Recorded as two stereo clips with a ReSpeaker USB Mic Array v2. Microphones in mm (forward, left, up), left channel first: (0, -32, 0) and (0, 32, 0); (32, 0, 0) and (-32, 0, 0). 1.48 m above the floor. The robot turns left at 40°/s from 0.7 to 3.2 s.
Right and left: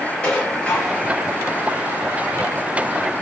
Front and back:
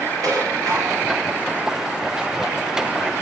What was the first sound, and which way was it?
Dishes clattering, 160° right.